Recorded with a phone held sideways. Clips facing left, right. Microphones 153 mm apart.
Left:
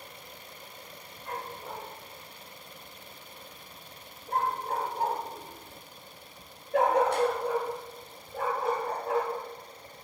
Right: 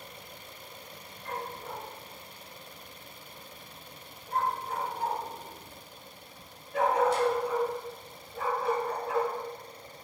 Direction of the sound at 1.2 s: 5° left (ahead or behind).